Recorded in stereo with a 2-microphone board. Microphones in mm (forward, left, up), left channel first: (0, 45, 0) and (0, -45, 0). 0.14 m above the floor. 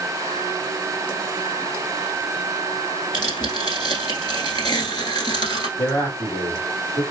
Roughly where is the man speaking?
Left.